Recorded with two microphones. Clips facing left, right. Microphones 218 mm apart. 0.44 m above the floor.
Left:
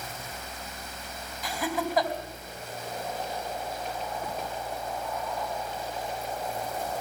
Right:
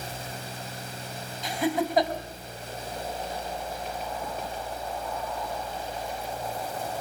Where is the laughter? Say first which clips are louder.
Right 4 dB; 25° right (ahead or behind), 4 m.